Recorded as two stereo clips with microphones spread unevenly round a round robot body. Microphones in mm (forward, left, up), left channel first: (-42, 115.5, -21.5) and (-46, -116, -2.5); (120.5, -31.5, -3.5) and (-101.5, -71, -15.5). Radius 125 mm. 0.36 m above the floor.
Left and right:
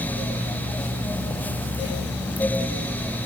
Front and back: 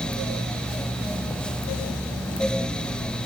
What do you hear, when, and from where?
Only background noise.